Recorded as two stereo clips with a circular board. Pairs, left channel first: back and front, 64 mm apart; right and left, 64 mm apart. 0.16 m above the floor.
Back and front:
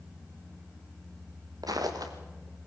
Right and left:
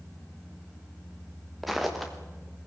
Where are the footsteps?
Straight ahead, 3 m.